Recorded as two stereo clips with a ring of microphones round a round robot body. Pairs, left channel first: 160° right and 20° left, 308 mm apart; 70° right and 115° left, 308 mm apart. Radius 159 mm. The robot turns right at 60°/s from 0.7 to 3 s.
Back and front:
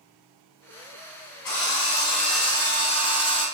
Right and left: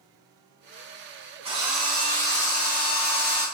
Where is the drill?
175° right, 4 m; by 3.5 s 85° right, 4 m.